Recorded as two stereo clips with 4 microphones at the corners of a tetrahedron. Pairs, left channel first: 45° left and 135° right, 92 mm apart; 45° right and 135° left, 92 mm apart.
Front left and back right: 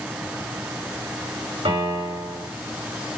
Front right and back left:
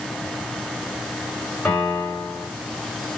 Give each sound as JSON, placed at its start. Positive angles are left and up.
{"t": 1.6, "sound": "a piano", "azimuth_deg": -125, "distance_m": 5.5}